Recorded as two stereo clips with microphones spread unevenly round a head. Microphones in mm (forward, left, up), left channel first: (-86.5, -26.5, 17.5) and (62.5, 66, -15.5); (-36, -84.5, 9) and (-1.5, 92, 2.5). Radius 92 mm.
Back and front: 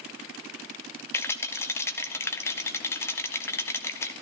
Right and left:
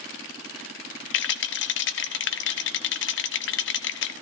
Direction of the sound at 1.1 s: 75° right.